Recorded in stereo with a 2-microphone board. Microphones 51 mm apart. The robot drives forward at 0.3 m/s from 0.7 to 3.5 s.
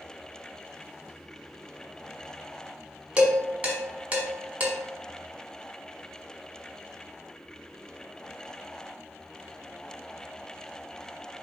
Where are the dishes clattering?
30° right (ahead or behind), 1.1 m.